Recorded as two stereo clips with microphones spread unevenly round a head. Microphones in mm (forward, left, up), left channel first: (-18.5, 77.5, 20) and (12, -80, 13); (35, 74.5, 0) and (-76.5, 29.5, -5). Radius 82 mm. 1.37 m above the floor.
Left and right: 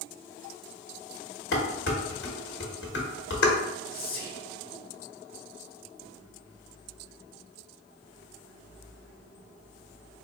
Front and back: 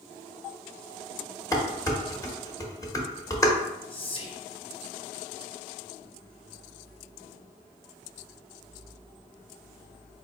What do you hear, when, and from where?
1.5 s dishes clattering: 85° left, 1.2 m
3.9 s whispering: 65° left, 1.3 m